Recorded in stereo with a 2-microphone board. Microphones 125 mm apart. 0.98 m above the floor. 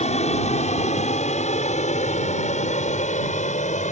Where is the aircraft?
65° left (ahead or behind); by 3.9 s 70° left (ahead or behind).